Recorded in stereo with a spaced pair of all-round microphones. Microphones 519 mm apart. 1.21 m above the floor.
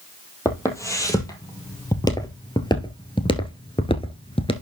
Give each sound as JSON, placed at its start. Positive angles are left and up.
{"t": 0.5, "sound": "footsteps", "side_deg": 5, "distance_m": 2.5}